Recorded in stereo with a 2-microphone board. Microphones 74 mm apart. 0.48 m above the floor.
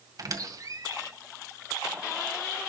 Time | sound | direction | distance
0.2 | a squeak | 55° right (ahead or behind) | 1.9 m